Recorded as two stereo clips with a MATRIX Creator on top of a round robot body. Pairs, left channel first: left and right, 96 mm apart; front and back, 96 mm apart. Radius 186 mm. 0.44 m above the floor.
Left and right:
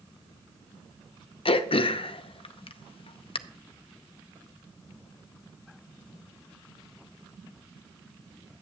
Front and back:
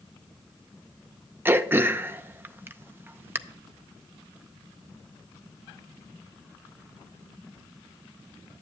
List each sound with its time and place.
1.4 s throat clearing: 110° left, 0.6 m